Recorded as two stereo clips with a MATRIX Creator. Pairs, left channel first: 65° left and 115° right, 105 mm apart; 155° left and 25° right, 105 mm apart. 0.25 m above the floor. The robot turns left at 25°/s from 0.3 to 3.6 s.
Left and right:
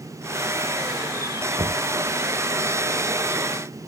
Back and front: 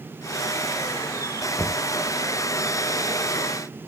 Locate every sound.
1.6 s knocking: 125° right; by 1.8 s 130° right